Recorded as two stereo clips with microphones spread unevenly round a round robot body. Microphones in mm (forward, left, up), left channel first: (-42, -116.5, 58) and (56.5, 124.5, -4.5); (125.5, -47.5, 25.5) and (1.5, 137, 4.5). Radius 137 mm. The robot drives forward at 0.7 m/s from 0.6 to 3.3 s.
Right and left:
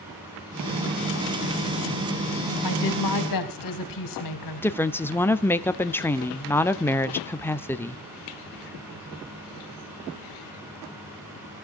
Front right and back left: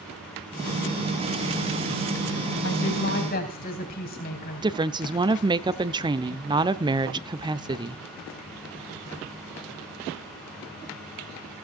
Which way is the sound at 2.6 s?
105° right.